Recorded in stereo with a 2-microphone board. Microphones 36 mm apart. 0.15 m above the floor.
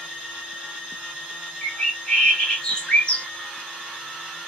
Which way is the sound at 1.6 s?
25° left (ahead or behind).